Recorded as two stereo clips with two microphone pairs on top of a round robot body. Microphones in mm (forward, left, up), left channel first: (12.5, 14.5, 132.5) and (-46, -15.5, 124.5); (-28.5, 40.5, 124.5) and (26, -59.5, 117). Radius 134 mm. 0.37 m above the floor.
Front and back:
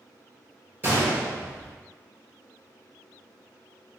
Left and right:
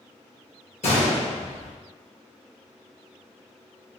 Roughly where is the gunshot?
Behind left.